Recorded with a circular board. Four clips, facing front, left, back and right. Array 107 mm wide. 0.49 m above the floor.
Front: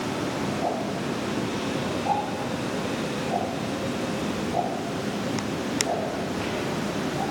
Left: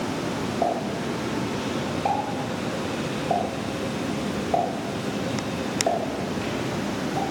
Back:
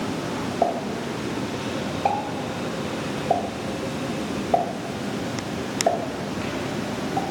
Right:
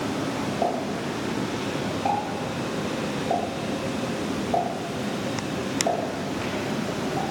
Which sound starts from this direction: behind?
A pop, at 0.6 s.